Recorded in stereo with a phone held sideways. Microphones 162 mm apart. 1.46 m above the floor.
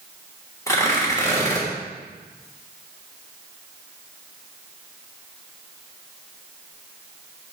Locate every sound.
0.7 s tearing paper: 20° left (ahead or behind), 3 m